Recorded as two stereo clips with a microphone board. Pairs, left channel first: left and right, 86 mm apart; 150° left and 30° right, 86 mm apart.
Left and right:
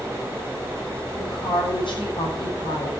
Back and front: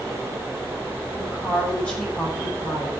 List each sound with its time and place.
1.2 s a woman speaking: 75° left, 6.5 m; by 2.9 s 85° left, 6.5 m